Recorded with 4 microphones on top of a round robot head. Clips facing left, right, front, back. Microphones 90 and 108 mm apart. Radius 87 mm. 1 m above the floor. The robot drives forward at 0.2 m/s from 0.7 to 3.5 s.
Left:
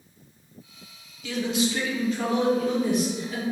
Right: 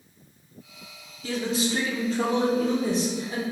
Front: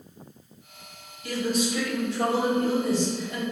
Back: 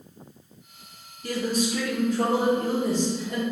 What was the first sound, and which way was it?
A man speaking, 135° right.